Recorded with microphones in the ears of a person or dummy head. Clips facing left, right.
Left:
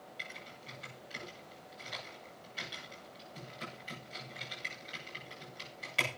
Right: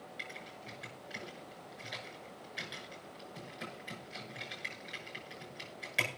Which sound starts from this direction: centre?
Typing on a keyboard, at 0.2 s.